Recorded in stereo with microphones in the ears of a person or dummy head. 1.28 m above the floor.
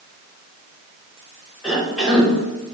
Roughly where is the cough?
Centre.